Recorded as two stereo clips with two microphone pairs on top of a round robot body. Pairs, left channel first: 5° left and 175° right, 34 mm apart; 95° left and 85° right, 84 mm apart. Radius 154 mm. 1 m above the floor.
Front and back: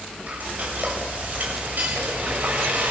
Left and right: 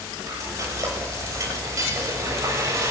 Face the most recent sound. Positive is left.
turn(degrees=-140)